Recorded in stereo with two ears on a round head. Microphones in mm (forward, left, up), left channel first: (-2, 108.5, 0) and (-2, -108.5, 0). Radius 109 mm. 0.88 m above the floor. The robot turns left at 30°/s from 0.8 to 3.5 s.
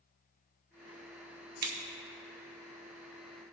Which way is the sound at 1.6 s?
40° right (ahead or behind).